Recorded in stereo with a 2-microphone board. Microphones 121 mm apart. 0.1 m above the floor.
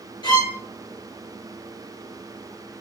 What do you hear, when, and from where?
0.2 s a violin: 40° left (ahead or behind), 1.5 m